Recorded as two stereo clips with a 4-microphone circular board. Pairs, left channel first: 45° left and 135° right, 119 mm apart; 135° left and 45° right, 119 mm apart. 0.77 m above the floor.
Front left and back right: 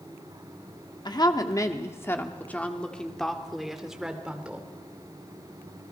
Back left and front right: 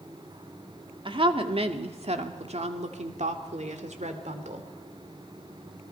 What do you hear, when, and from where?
1.1 s a woman speaking: 5° right, 1.7 m; by 4.7 s 55° right, 2.5 m